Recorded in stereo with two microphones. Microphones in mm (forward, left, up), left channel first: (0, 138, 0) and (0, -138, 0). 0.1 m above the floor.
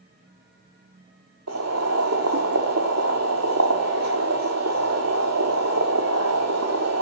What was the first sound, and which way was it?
Boiling, 65° right (ahead or behind).